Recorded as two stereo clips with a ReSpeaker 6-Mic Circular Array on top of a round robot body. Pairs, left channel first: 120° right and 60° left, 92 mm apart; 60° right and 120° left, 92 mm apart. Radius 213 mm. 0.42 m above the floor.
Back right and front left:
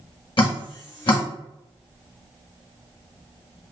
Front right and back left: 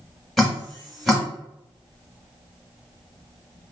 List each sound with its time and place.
0.4 s dripping: 150° right, 1.6 m